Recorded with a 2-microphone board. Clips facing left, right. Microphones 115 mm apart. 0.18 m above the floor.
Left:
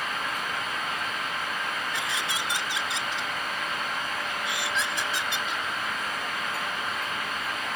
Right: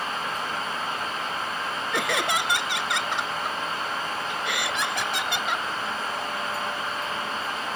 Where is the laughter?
60° right (ahead or behind).